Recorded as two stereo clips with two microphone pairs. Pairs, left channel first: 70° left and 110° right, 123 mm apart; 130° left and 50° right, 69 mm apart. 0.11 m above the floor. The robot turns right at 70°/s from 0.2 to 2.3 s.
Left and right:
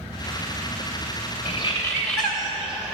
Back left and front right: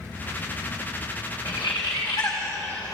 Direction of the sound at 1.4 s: 110° left.